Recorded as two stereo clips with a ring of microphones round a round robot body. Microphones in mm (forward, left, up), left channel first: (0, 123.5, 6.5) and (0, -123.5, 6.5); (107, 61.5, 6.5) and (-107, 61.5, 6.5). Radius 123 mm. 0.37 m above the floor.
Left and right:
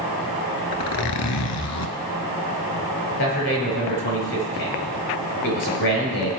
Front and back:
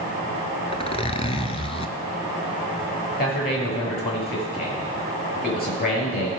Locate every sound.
0.7 s a zipper: 65° left, 1.2 m
3.2 s a man speaking: 45° left, 6.5 m